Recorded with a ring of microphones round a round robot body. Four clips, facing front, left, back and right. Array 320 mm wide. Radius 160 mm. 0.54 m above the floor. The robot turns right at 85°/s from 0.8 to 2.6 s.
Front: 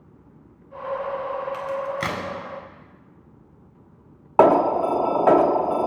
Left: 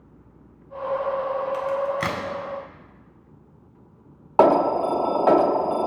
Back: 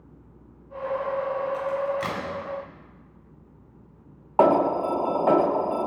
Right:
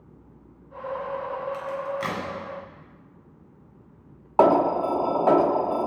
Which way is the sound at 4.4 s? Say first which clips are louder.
Left 2 dB, front 3 dB; 25° left.